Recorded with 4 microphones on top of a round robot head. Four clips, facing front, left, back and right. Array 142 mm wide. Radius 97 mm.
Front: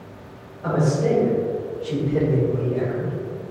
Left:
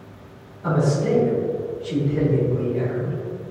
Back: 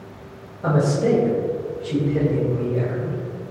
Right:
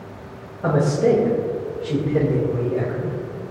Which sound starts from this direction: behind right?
A man speaking, at 0.6 s.